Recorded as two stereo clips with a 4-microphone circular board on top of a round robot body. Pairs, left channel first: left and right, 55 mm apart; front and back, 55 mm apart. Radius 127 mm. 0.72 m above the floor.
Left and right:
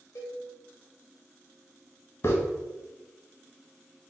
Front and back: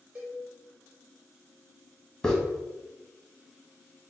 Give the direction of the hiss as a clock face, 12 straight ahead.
10 o'clock.